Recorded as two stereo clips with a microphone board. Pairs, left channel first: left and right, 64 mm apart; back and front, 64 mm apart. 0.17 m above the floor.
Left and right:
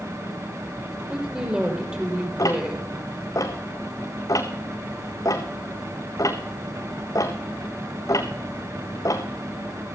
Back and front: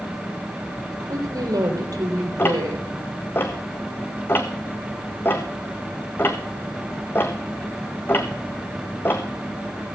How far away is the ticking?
About 1.8 m.